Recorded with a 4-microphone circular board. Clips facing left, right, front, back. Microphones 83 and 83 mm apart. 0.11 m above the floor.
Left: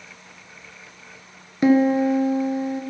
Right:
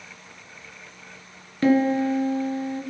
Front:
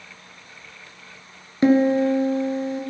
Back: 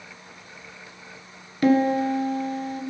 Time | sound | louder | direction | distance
1.6 | a piano | left 3 dB, front 3 dB | 35° left | 1.6 m